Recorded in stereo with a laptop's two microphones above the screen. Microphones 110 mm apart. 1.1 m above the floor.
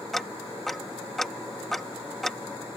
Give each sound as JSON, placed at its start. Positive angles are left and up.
{"t": 0.1, "sound": "ticking", "side_deg": 5}